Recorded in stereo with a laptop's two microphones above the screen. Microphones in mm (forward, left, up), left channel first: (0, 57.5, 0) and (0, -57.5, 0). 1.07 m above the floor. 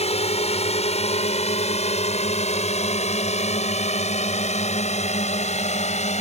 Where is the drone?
65° left (ahead or behind); by 6.2 s 75° left (ahead or behind).